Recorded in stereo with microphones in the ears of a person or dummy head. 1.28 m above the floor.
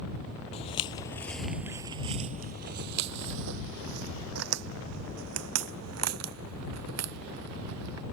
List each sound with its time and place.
0.5 s footsteps: 35° left (ahead or behind); by 8.0 s 85° right